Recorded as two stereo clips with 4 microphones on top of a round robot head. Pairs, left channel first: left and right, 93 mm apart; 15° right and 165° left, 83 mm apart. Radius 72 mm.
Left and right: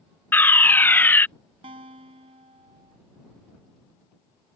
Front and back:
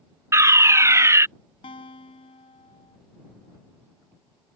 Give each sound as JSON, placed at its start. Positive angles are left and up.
{"t": 0.3, "sound": "a fire alarm", "azimuth_deg": 145}
{"t": 1.6, "sound": "a guitar", "azimuth_deg": -50}